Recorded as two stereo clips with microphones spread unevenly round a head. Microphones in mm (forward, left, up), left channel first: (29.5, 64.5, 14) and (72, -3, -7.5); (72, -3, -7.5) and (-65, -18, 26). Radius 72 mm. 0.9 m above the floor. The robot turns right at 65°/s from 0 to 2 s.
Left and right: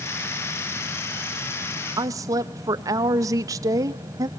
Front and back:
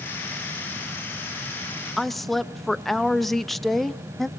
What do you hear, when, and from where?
2.0 s a woman speaking: 75° right, 0.6 m